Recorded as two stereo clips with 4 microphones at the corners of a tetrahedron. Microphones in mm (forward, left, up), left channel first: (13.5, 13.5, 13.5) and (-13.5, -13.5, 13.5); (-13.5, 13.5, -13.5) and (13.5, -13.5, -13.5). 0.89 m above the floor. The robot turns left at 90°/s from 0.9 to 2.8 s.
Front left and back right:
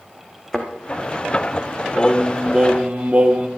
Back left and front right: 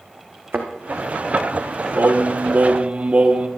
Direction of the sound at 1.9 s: 15° right.